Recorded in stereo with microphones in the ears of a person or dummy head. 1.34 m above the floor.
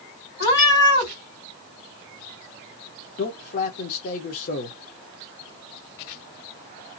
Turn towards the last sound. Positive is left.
turn(degrees=50)  # may be behind; listen again after turning